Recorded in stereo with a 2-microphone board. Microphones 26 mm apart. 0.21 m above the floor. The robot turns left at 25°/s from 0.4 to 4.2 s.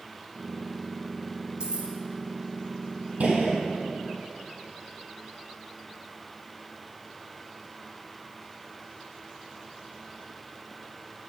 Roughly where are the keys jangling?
Right.